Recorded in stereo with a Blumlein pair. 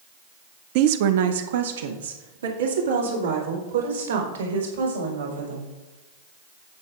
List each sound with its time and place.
0.8 s a woman speaking: 45° right, 0.5 m; by 5.7 s 75° right, 5 m